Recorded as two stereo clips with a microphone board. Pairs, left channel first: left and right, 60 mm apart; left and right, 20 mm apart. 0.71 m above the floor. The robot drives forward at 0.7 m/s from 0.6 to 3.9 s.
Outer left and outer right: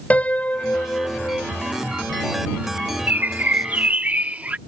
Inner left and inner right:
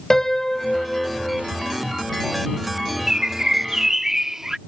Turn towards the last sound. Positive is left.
turn(degrees=-25)  # may be behind; listen again after turning